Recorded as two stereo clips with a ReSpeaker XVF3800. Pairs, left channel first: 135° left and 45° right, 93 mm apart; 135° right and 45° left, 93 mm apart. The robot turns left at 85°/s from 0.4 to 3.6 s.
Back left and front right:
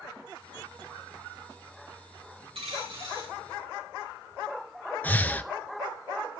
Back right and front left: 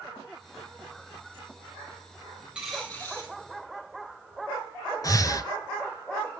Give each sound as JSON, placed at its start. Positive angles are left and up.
{"t": 2.5, "sound": "a dropped coin", "azimuth_deg": -30, "distance_m": 4.0}
{"t": 5.0, "sound": "breathing", "azimuth_deg": -160, "distance_m": 0.9}